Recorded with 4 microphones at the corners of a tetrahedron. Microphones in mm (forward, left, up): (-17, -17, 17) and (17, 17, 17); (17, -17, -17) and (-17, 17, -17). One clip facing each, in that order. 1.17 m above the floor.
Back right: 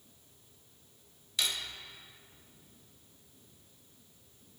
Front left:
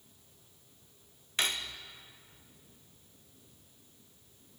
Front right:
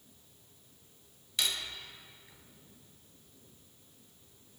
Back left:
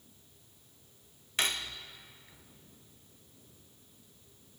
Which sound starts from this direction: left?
Cutlery clinking, at 1.4 s.